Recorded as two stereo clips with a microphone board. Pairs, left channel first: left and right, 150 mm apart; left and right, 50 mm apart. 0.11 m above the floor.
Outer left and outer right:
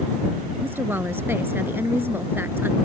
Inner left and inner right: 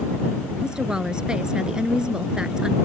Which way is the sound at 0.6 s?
15° right (ahead or behind).